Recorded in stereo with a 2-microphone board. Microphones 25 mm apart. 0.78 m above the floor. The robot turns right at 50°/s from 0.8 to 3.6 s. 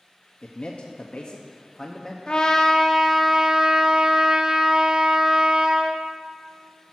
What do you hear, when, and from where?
0.4 s a man speaking: 95° left, 0.7 m; by 2.2 s 165° left, 0.7 m
2.3 s a trumpet: 140° left, 0.7 m; by 6.0 s 150° right, 0.7 m